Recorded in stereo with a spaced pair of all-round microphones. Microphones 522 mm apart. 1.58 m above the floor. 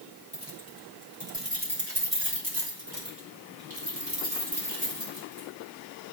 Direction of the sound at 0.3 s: 20° left (ahead or behind).